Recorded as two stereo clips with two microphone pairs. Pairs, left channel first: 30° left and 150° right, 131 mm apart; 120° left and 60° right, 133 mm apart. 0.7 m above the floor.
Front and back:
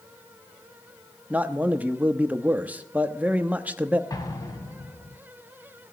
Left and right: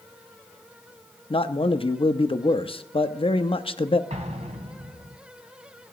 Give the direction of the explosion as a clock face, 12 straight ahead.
1 o'clock.